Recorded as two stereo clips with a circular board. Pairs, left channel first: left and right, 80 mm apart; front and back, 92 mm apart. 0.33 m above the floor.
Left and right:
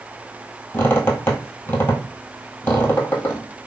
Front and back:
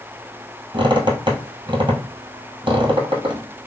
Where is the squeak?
150° left, 1.3 m.